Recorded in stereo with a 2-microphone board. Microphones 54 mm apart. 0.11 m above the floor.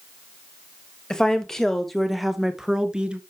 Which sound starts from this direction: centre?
A woman speaking, at 1.1 s.